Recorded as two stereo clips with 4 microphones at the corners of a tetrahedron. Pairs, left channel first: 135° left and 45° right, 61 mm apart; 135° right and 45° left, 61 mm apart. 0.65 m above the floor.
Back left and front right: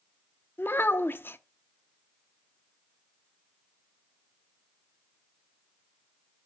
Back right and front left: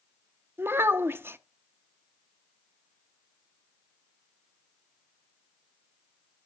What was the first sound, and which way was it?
A child speaking, 90° left.